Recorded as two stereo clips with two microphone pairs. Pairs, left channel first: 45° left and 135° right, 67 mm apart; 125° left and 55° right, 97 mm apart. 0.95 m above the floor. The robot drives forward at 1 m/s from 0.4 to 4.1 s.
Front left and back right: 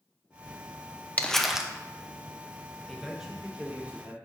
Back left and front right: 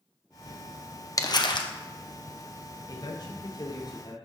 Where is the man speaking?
130° left, 1.0 m; by 4.1 s 165° left, 1.8 m.